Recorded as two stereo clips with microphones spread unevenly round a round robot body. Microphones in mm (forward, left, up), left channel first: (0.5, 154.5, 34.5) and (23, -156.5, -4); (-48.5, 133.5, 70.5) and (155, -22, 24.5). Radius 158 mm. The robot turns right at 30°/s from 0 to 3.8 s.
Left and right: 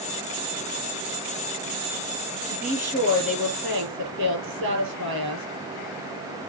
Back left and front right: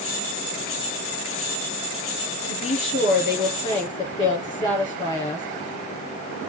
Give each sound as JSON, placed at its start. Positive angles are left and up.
{"t": 2.5, "sound": "a woman speaking", "azimuth_deg": 180, "distance_m": 7.0}